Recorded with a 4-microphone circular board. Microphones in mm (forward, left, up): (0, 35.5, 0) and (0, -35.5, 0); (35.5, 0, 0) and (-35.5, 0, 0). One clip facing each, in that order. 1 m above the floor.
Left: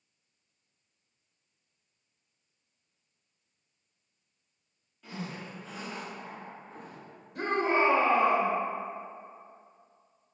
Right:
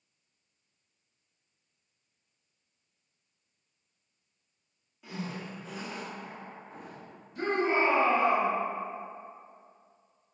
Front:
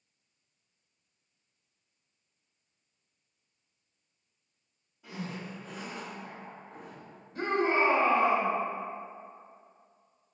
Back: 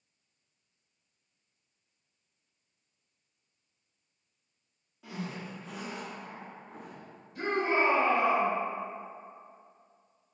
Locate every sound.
5.0 s a zipper: 170° right, 1.2 m
7.3 s a shout: 55° left, 1.1 m